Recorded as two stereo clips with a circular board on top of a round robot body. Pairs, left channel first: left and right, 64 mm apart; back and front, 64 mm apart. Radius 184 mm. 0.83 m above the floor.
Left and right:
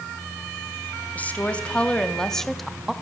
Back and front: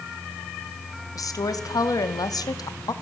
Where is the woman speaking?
155° left, 3 m; by 2.9 s 175° right, 2 m.